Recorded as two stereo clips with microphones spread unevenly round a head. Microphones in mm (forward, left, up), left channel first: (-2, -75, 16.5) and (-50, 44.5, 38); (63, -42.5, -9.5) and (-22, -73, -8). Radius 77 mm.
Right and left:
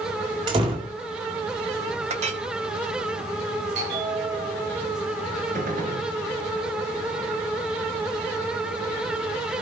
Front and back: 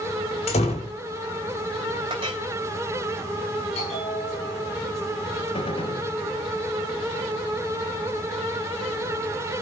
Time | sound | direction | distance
0.5 | a door slam | 50° left | 3.5 m
2.1 | a clink | 145° left | 1.9 m
3.8 | a bell | 65° left | 10 m
5.5 | a gunshot | 75° left | 3.5 m